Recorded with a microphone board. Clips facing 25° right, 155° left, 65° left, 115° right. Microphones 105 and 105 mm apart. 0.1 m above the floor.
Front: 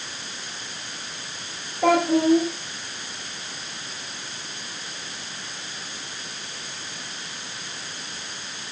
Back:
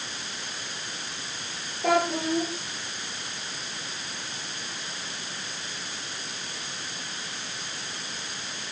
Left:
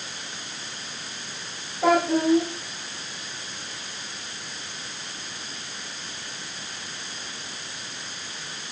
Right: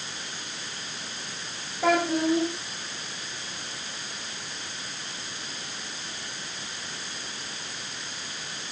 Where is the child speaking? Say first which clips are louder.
Front 6 dB, left 3 dB; 10° right, 7.5 m.